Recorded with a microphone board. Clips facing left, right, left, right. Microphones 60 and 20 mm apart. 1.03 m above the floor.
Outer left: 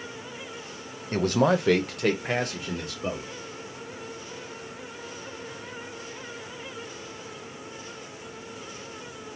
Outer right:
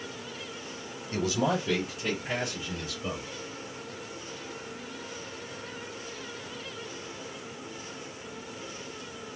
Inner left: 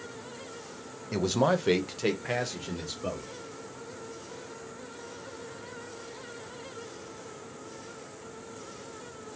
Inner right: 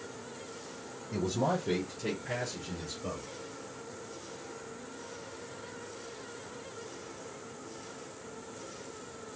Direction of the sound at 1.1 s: 45° left (ahead or behind).